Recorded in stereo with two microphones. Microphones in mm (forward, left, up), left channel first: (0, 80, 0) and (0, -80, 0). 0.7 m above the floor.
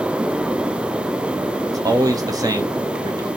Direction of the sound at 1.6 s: 20° right (ahead or behind).